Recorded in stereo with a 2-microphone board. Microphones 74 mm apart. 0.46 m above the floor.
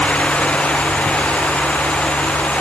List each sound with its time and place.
Only background noise.